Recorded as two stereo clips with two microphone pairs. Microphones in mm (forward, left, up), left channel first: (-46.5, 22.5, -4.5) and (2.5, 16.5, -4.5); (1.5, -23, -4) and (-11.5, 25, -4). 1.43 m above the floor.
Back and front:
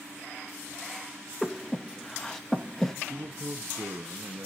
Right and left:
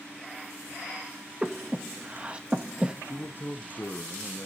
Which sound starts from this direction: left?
Breathing, at 1.4 s.